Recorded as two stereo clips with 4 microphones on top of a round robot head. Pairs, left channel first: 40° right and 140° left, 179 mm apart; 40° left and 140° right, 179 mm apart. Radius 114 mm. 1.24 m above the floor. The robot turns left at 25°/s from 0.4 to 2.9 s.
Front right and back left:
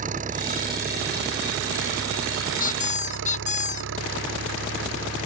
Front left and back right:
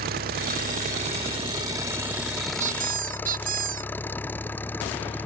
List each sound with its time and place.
0.0 s an engine running: 175° right; by 5.3 s 120° left
2.6 s a squeak: 85° right; by 3.9 s 90° right